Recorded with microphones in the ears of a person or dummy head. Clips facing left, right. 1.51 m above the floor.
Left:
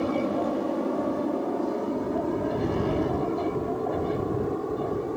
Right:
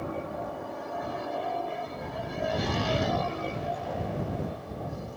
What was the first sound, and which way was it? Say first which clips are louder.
An aircraft: left 9 dB; 60° left (ahead or behind).